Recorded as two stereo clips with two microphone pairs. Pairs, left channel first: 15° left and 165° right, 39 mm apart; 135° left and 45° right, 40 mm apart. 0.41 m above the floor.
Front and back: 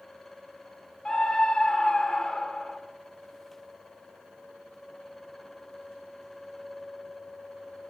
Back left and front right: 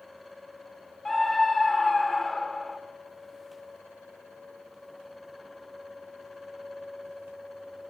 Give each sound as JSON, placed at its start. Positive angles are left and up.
{"t": 1.1, "sound": "a scream", "azimuth_deg": 50, "distance_m": 1.1}